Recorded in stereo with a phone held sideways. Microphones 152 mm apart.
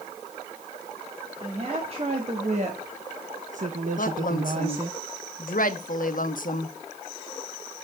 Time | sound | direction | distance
1.4 | a woman speaking | 40° right (ahead or behind) | 2.5 m
4.0 | a woman speaking | 65° left (ahead or behind) | 1.1 m